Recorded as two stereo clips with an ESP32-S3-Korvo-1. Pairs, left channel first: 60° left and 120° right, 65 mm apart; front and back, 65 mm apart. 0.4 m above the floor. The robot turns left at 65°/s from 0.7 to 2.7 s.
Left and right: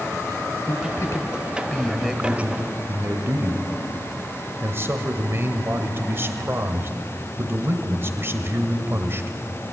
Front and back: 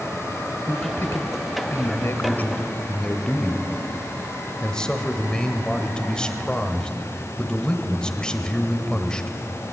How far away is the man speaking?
About 1.6 m.